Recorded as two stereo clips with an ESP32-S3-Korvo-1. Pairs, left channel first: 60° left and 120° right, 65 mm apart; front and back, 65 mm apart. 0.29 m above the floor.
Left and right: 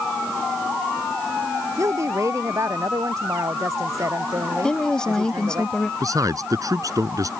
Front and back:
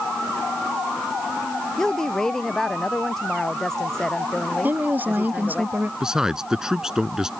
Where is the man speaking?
100° right.